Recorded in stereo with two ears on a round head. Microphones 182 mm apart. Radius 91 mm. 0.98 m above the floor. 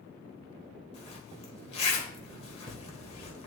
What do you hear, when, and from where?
0.9 s a zipper: 30° left (ahead or behind), 1.6 m